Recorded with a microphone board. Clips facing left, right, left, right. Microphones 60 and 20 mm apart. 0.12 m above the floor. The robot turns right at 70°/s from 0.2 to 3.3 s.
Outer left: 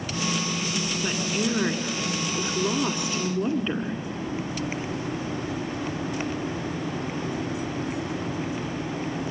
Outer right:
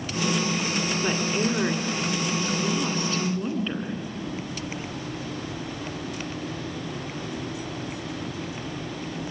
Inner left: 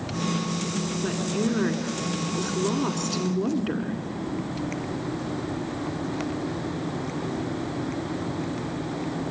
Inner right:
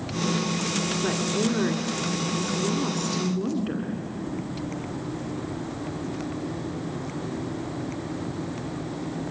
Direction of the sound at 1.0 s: 10° right (ahead or behind).